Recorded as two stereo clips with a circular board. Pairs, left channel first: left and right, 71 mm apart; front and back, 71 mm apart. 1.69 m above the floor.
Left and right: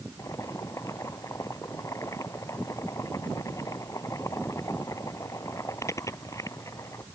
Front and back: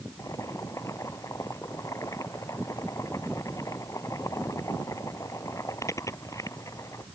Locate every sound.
0.2 s boiling: 45° left